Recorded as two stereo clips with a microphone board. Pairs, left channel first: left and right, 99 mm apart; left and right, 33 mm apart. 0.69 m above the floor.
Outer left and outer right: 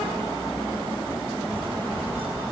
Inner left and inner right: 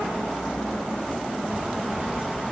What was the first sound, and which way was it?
Footsteps, 70° right (ahead or behind).